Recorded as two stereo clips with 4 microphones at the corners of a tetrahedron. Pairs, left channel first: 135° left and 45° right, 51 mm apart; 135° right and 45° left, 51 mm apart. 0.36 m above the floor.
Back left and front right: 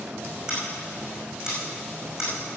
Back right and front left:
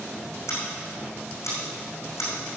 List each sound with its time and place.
0.5 s scissors: 125° right, 5.5 m